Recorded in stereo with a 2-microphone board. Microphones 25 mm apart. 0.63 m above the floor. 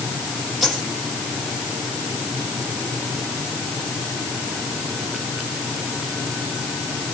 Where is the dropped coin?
5° right (ahead or behind), 8.5 m.